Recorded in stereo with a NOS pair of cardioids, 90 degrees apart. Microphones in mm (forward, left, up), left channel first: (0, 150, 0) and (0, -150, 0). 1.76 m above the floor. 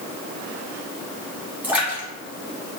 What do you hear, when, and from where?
1.6 s a splash: 5° right, 1.7 m